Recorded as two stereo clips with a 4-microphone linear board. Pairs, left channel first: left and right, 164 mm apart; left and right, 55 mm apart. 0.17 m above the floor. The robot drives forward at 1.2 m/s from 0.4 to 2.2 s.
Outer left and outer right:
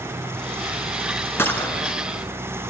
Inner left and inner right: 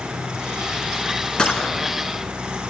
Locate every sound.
1.4 s a gunshot: 15° left (ahead or behind), 1.2 m; by 1.9 s 10° left (ahead or behind), 1.7 m